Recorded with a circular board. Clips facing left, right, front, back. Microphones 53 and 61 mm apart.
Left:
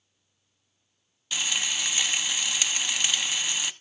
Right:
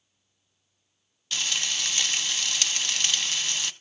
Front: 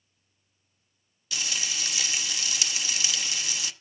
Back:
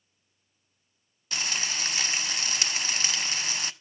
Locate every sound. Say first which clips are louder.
1.3 s frying: left 1 dB, back 2 dB; 165° left, 0.7 m